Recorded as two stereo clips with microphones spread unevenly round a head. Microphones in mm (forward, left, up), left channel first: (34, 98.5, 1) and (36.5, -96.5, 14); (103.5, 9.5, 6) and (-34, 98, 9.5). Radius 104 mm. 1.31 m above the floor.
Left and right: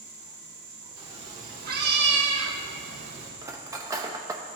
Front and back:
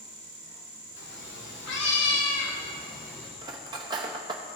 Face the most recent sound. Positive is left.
turn(degrees=-155)